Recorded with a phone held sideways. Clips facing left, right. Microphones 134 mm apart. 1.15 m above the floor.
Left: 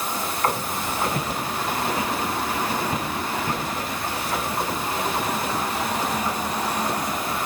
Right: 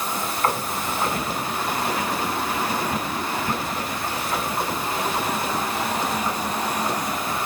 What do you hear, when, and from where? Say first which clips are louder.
1.1 s footsteps: even; 25° left (ahead or behind), 7.5 m; by 3.6 s 10° left (ahead or behind), 9.5 m